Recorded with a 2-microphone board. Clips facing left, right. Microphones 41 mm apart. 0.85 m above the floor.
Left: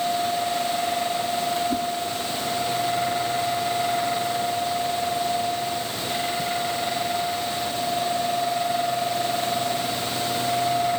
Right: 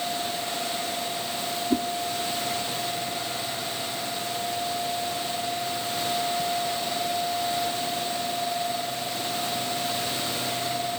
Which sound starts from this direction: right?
A whoosh, at 1.7 s.